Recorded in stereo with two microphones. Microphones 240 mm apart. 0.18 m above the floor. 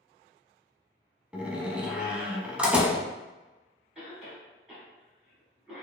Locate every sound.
1.3 s a door slam: 5° right (ahead or behind), 0.7 m
4.0 s a cough: 5° right (ahead or behind), 1.5 m